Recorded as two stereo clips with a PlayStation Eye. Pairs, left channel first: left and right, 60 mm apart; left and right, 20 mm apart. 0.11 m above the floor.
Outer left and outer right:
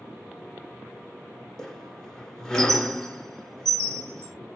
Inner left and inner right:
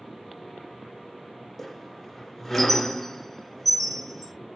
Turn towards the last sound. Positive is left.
turn(degrees=10)  # may be behind; listen again after turning